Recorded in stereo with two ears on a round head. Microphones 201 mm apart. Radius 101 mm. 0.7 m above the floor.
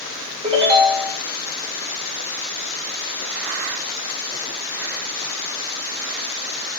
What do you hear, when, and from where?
0.4 s a ringtone: 25° right (ahead or behind), 2.0 m